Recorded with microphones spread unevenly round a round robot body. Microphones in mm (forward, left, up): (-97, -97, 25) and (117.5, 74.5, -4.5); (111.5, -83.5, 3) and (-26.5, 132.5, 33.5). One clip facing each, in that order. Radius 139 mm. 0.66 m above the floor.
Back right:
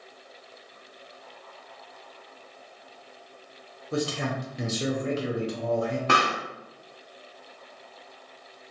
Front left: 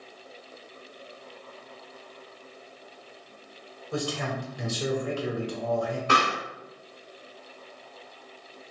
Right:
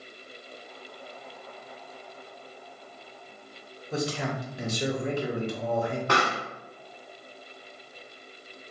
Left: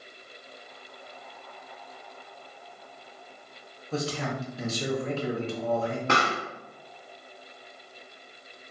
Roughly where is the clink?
I don't hear a clink.